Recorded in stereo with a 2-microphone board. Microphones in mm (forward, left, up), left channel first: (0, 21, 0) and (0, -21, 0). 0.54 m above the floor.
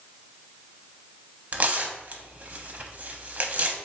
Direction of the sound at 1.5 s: 35° right (ahead or behind).